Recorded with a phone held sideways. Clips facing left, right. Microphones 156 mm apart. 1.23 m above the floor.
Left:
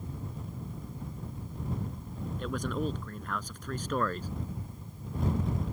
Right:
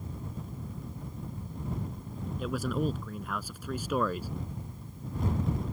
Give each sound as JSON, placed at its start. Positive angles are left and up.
{"t": 2.4, "sound": "a man speaking", "side_deg": -5}